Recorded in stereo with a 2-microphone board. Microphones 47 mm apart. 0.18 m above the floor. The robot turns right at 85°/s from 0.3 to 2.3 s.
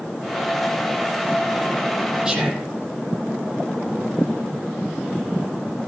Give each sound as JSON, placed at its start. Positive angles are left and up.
{"t": 2.2, "sound": "whispering", "side_deg": -15, "distance_m": 6.5}